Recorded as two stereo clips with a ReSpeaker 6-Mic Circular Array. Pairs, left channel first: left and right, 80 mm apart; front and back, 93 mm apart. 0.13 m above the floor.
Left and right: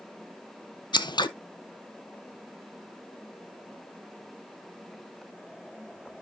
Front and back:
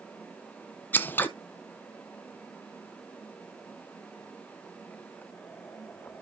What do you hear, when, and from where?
0.9 s scissors: 70° left, 0.6 m